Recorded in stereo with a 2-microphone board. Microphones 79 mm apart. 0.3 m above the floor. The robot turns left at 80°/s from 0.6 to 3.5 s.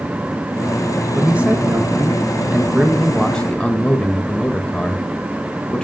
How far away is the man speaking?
About 1.2 m.